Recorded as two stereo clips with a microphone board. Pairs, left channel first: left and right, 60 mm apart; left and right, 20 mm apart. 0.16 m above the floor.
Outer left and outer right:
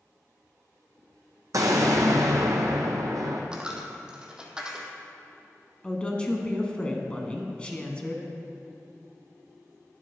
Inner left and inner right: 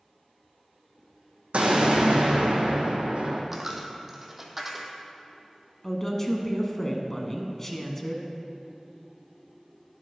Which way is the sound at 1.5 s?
70° right (ahead or behind).